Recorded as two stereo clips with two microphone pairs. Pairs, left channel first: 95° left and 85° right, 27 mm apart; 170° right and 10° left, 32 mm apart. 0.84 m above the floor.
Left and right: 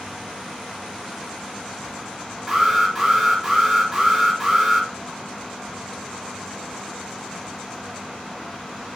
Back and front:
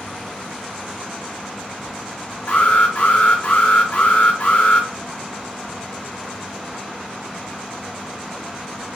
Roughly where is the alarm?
Behind.